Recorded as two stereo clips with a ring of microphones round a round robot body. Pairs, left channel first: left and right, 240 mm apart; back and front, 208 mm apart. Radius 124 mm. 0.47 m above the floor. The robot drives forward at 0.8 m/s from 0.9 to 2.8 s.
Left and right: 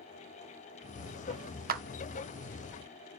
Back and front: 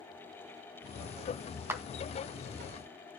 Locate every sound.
1.7 s a clap: 70° right, 0.6 m; by 1.8 s 90° right, 0.6 m